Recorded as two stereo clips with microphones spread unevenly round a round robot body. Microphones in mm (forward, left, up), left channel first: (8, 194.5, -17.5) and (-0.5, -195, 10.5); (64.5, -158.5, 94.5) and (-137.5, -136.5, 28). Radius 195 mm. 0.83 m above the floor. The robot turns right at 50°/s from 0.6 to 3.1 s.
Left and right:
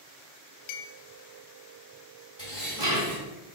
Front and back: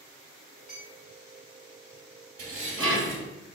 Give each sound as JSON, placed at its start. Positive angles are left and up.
{"t": 0.7, "sound": "a clink", "azimuth_deg": 65, "distance_m": 0.7}
{"t": 2.4, "sound": "dishes clattering", "azimuth_deg": 165, "distance_m": 3.0}